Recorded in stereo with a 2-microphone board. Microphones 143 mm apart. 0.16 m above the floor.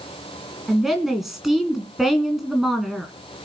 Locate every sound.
0.7 s a woman speaking: centre (ahead or behind), 1.8 m